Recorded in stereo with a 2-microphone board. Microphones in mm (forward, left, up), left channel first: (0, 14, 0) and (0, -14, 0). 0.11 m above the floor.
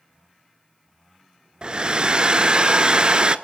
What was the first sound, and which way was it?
A hair dryer, 35° right (ahead or behind).